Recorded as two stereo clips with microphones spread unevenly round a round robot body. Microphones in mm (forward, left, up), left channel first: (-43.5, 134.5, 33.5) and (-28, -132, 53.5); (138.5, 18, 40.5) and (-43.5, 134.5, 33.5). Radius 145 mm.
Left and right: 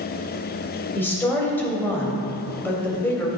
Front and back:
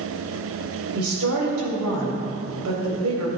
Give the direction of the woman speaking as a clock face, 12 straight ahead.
6 o'clock.